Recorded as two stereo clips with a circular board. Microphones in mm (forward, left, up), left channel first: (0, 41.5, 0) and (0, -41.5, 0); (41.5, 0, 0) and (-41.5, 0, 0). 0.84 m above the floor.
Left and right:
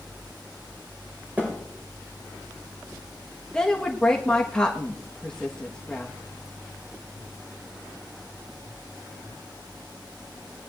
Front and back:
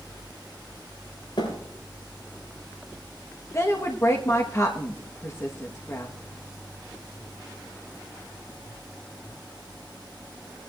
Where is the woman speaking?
15° left, 1.1 m.